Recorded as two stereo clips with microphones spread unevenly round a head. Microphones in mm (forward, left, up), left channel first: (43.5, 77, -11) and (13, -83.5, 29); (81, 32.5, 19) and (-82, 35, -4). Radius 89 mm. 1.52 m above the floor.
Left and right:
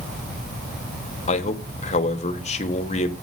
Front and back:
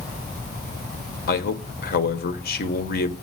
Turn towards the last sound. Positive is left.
turn(degrees=25)